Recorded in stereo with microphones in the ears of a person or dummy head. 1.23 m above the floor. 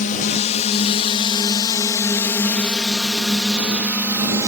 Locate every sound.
0.0 s a drone: 50° left (ahead or behind); by 4.5 s 10° right (ahead or behind)